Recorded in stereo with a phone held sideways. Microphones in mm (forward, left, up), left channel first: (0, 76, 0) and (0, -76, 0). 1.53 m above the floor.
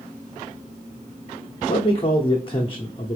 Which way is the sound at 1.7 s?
35° left (ahead or behind).